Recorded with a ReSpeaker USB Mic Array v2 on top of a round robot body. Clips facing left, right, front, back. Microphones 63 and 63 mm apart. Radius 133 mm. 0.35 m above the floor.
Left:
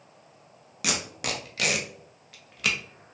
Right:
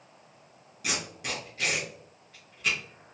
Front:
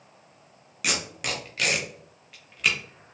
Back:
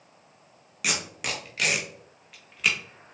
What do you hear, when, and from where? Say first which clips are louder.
0.8 s tape being pulled: left 3 dB, front 1 dB; 90° left, 0.5 m